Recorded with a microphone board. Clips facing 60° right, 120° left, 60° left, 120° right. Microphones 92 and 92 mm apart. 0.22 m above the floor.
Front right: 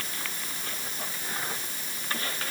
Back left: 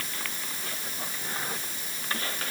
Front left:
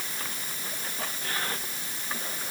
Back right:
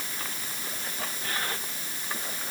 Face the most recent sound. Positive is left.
No sound to turn to.